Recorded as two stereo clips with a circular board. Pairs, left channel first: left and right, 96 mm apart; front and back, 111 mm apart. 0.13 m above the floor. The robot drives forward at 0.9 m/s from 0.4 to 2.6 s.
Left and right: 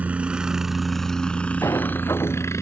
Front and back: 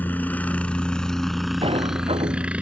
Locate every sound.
0.0 s a helicopter: 45° right; by 2.6 s 110° left
1.6 s a sliding door: 150° left